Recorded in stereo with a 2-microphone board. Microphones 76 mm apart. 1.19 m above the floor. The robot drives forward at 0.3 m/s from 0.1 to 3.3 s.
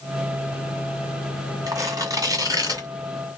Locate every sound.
1.7 s tearing paper: 50° right (ahead or behind), 1.6 m